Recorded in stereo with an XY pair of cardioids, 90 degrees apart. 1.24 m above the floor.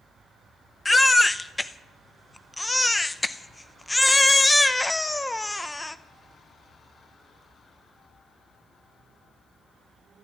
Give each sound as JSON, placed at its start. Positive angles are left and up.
{"t": 0.8, "sound": "a baby crying", "azimuth_deg": 20, "distance_m": 0.7}